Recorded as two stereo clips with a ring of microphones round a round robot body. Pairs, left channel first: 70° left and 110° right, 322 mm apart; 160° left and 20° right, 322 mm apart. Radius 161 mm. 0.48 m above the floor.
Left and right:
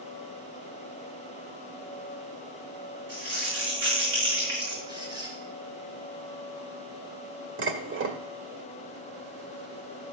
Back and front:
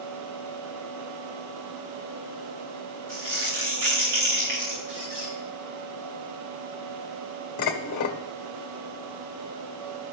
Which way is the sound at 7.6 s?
165° right.